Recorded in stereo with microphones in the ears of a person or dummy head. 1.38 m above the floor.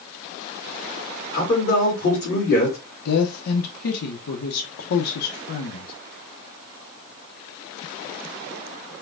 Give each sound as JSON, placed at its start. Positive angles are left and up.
{"t": 1.3, "sound": "a man speaking", "side_deg": 45, "distance_m": 2.0}
{"t": 3.0, "sound": "a woman speaking", "side_deg": 75, "distance_m": 0.9}